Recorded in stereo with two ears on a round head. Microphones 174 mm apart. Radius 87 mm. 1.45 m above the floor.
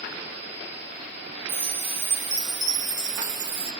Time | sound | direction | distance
1.5 | a chime | 20° right (ahead or behind) | 1.3 m